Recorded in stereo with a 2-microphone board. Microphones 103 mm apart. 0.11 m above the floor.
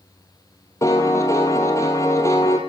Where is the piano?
30° left (ahead or behind), 1.5 m.